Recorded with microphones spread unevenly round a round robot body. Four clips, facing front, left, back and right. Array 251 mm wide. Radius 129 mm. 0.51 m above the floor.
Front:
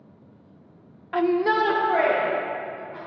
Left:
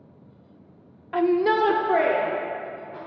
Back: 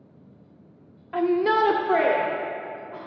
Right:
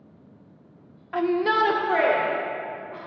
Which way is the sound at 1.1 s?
100° left.